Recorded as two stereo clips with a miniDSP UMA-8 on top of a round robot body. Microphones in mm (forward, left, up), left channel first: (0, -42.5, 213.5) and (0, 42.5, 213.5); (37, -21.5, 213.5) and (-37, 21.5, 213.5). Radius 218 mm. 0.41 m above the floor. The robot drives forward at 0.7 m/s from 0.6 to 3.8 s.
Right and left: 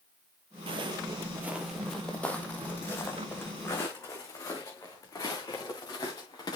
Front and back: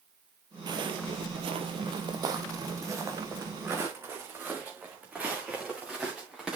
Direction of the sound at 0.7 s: 105° left.